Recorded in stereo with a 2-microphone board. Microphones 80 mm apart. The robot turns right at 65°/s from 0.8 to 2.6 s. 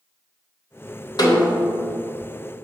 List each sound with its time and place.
1.2 s a snare drum: 85° left, 1.4 m; by 1.8 s 125° left, 1.4 m